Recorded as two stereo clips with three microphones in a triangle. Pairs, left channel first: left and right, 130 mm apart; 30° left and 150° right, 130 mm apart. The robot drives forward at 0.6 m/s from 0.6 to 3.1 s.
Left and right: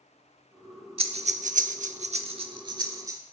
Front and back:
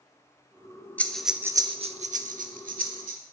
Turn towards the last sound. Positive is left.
turn(degrees=-155)